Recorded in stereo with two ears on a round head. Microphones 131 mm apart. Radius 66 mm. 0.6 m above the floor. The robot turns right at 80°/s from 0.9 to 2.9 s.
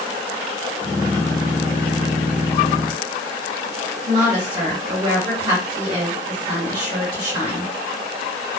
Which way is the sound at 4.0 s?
50° right (ahead or behind).